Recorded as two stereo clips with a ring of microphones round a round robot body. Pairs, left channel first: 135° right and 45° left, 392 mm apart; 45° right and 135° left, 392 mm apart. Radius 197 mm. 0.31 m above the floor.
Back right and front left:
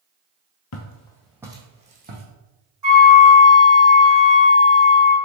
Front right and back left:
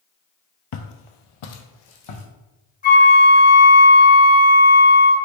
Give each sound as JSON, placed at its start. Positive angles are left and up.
{"t": 0.7, "sound": "footsteps", "azimuth_deg": -85, "distance_m": 0.5}
{"t": 2.8, "sound": "a flute", "azimuth_deg": 20, "distance_m": 2.0}